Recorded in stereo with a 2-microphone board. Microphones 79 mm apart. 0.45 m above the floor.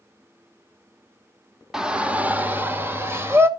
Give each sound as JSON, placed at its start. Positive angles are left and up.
{"t": 1.7, "sound": "a shout", "side_deg": -5, "distance_m": 0.8}